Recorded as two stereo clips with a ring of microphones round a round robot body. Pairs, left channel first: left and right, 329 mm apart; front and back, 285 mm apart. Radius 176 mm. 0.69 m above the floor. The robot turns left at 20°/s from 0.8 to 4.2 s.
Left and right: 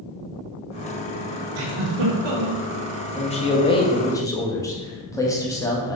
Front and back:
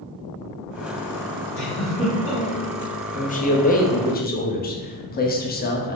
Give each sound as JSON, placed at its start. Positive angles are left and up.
{"t": 1.6, "sound": "a giggle", "azimuth_deg": -90, "distance_m": 0.9}
{"t": 3.1, "sound": "a man speaking", "azimuth_deg": 40, "distance_m": 0.7}